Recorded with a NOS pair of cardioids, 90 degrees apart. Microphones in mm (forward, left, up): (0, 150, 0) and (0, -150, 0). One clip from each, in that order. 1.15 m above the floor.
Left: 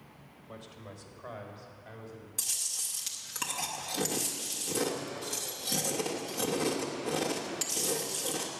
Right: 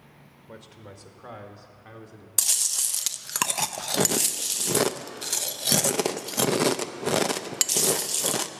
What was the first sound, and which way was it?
A man speaking, 30° right.